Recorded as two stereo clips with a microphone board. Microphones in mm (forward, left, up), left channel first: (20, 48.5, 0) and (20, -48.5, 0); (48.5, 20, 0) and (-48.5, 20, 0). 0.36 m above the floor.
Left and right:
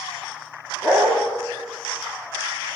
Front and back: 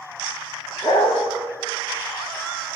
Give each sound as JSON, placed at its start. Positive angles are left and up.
{"t": 0.8, "sound": "a dog barking", "azimuth_deg": -45, "distance_m": 8.0}